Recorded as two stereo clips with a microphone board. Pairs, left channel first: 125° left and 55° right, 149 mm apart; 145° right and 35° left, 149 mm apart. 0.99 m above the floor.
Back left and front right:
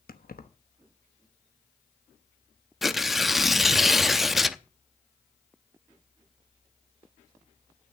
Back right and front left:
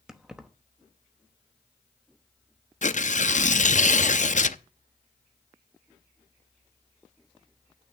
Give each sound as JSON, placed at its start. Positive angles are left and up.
{"t": 0.1, "sound": "keys jangling", "azimuth_deg": 120, "distance_m": 1.0}
{"t": 2.8, "sound": "tearing paper", "azimuth_deg": -145, "distance_m": 0.5}